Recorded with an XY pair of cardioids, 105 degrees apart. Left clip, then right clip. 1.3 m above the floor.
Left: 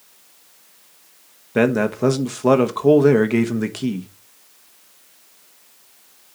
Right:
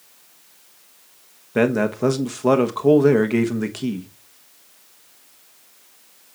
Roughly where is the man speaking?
Ahead.